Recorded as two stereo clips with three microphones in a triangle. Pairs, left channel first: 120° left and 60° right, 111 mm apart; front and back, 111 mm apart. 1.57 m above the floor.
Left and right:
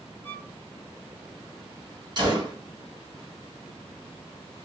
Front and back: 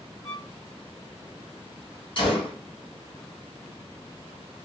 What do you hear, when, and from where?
0.2 s a violin: 50° left, 1.3 m
2.2 s a gunshot: 20° right, 1.2 m